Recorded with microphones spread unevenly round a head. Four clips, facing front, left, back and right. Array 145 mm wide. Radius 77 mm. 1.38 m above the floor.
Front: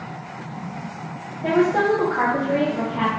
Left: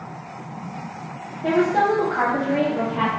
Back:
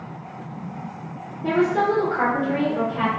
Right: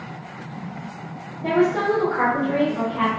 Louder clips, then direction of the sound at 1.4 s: Left 1 dB, front 1 dB; 20° left.